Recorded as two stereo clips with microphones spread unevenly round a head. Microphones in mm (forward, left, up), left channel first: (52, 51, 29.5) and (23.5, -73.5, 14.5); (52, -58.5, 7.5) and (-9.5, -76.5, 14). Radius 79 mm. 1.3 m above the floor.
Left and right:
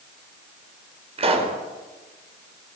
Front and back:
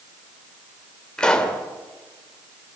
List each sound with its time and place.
1.2 s a pop: 60° right, 4.5 m